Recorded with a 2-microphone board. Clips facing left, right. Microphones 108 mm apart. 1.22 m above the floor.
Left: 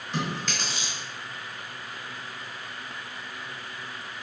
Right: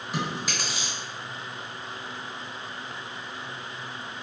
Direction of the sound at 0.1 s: 10° right (ahead or behind).